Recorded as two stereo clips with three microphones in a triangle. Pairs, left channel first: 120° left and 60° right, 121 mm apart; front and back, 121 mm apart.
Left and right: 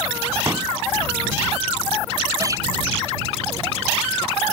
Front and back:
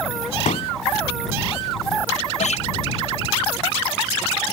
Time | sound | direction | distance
0.5 | a pop | 5° left | ?
2.4 | a guitar | straight ahead | ?